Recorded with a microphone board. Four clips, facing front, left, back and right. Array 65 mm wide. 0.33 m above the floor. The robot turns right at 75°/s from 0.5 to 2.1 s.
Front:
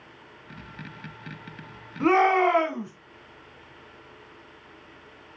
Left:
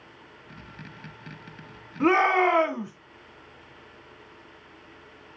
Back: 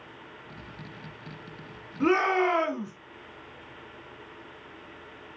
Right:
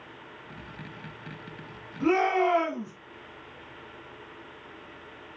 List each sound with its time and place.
2.0 s a shout: 55° left, 3 m; by 2.9 s 60° left, 3 m